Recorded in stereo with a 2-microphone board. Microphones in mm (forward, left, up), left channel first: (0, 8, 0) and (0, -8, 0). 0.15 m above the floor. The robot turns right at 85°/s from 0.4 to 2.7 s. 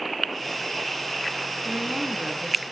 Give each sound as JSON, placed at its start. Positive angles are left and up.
{"t": 1.6, "sound": "a woman speaking", "side_deg": -25, "distance_m": 1.5}